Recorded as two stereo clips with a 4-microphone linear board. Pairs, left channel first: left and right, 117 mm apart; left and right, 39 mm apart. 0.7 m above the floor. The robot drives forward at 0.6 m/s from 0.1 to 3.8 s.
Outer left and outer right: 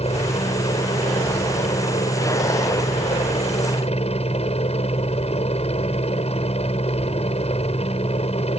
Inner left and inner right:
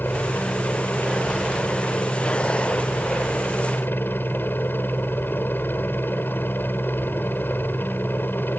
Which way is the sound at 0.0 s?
60° left (ahead or behind).